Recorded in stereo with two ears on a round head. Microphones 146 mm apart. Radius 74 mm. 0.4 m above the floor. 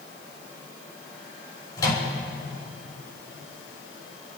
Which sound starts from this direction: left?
A microwave, at 1.8 s.